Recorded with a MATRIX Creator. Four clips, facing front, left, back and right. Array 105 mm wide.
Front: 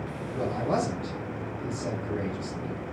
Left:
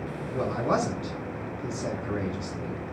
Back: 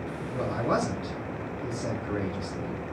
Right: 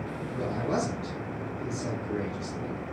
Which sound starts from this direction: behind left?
A man speaking, at 0.3 s.